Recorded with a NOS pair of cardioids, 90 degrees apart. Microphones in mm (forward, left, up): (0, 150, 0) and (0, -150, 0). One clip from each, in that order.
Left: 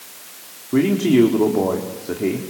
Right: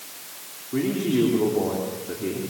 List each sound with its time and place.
0.7 s a man speaking: 55° left, 4 m